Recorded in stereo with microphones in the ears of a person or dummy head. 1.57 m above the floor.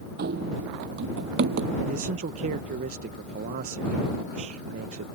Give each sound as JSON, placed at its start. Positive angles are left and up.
{"t": 0.2, "sound": "running footsteps", "side_deg": -55}
{"t": 1.9, "sound": "a man speaking", "side_deg": -50}